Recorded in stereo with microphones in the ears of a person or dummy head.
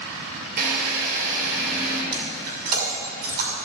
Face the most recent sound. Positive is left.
turn(degrees=-50)  # may be behind; listen again after turning